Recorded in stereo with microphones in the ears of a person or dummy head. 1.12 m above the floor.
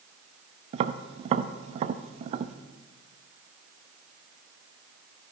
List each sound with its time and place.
0.7 s tapping: 35° right (ahead or behind), 0.5 m